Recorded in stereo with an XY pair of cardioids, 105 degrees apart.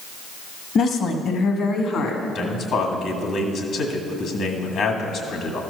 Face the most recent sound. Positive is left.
turn(degrees=65)